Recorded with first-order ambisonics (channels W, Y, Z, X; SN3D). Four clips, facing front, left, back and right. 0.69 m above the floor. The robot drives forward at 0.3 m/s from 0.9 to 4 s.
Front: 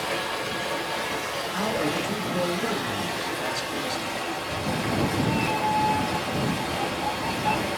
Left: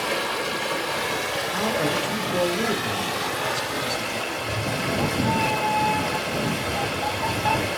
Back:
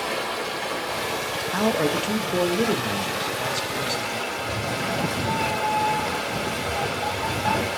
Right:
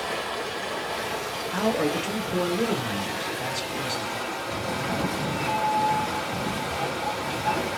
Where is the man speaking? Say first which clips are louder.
Right 1 dB, back 5 dB; 175° right, 0.8 m; by 4.2 s straight behind, 1.4 m.